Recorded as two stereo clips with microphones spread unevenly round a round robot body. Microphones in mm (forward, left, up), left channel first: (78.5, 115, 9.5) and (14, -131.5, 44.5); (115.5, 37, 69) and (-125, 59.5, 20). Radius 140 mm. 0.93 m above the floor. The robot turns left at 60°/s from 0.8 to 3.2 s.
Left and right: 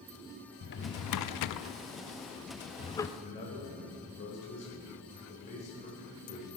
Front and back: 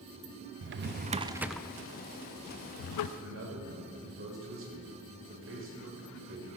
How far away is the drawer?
About 0.5 m.